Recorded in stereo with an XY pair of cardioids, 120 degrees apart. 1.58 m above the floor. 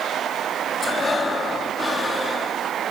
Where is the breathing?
30° left, 3.5 m.